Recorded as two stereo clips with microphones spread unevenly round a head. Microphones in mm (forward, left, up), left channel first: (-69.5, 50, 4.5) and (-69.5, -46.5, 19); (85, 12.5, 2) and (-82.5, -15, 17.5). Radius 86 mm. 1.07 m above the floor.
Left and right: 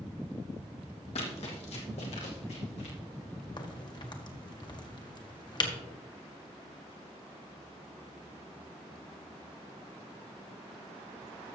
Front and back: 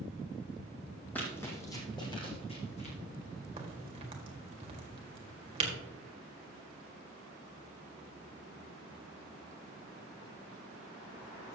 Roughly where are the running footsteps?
Left.